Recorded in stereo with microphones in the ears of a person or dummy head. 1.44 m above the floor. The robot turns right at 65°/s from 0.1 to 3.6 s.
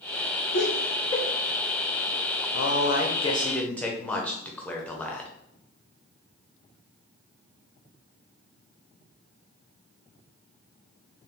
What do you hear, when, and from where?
0.5 s laughter: 55° left (ahead or behind), 0.8 m; by 1.2 s 20° left (ahead or behind), 0.8 m
2.5 s a man speaking: 105° left, 0.8 m; by 5.3 s 170° left, 0.8 m